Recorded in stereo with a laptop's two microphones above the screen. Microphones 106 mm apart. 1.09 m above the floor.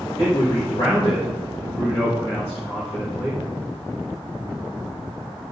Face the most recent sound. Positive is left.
turn(degrees=60)  # may be behind; listen again after turning